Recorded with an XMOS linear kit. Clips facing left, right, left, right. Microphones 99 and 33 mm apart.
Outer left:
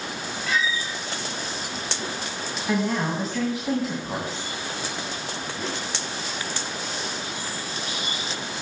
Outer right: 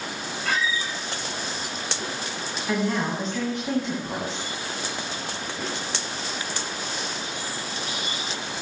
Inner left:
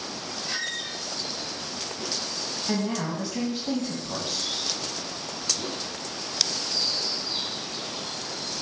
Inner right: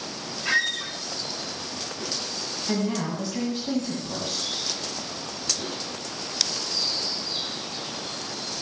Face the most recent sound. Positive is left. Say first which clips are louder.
# outer left 1 dB, inner right 1 dB
turn(degrees=5)  # may be behind; listen again after turning